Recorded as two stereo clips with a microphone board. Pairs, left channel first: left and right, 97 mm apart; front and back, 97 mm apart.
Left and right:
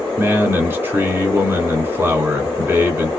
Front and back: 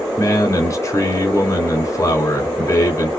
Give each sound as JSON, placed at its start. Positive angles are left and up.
{"t": 0.2, "sound": "a man speaking", "azimuth_deg": -35, "distance_m": 1.6}